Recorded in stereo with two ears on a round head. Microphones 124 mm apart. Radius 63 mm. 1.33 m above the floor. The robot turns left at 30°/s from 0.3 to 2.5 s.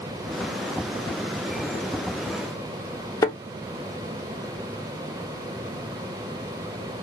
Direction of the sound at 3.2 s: 25° left (ahead or behind).